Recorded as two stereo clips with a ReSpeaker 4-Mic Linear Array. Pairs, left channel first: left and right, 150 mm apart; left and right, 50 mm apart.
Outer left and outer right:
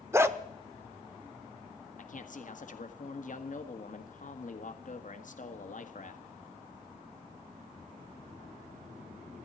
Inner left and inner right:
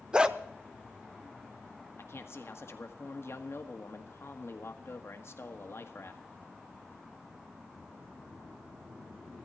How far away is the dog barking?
About 0.7 m.